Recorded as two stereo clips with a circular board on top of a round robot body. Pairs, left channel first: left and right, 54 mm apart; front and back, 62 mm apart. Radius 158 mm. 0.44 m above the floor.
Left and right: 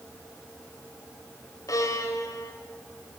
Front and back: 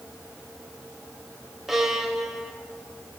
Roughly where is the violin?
Left.